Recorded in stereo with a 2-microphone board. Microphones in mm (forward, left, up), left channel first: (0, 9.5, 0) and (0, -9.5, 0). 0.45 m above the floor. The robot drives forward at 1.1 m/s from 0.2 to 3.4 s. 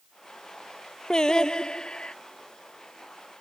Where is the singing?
50° left (ahead or behind); by 2.1 s 65° left (ahead or behind).